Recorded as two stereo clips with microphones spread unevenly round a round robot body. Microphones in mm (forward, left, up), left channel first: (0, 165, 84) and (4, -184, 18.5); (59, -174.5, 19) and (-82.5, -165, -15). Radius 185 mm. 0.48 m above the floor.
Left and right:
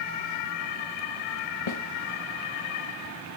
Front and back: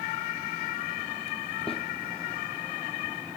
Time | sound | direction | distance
1.7 | a snare drum | 85° left | 2 m